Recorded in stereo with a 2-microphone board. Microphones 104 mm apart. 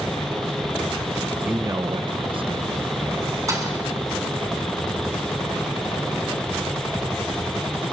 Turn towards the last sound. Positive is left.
turn(degrees=-30)  # may be behind; listen again after turning